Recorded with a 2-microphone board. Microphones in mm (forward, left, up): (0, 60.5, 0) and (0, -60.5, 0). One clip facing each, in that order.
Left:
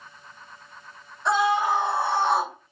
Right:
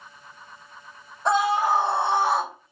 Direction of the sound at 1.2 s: 40° right (ahead or behind).